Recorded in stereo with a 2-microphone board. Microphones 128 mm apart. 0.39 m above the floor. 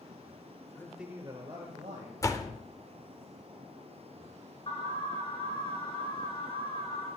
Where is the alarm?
45° left (ahead or behind), 5 m.